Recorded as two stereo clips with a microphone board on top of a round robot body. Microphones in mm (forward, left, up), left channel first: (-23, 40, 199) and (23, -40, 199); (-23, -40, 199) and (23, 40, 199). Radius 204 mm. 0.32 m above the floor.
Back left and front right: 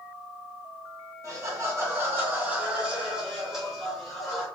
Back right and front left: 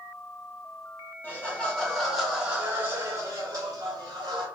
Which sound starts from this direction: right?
Laughter, at 1.2 s.